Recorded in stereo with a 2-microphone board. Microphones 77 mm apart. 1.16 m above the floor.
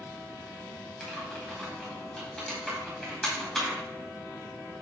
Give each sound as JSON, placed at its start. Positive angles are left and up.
{"t": 1.0, "sound": "typing on a keyboard", "side_deg": 5, "distance_m": 2.0}